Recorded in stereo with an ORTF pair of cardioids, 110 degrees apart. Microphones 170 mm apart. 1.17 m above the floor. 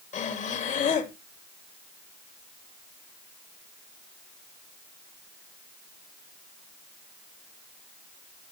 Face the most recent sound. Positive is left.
turn(degrees=45)